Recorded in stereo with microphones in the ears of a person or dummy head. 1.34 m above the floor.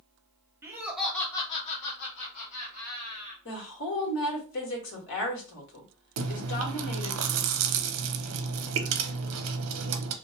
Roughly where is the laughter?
Centre.